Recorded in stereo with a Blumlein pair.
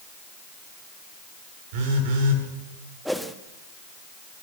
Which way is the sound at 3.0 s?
Straight ahead.